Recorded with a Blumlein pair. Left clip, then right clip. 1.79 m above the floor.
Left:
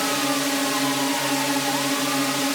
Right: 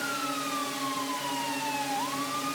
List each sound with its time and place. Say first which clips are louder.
0.0 s a drone: left 8 dB; 60° left